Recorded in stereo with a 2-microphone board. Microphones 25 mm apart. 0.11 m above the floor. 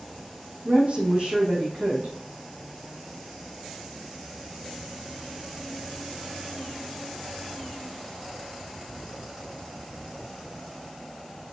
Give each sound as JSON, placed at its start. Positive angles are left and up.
{"t": 0.7, "sound": "a woman speaking", "side_deg": -50, "distance_m": 4.5}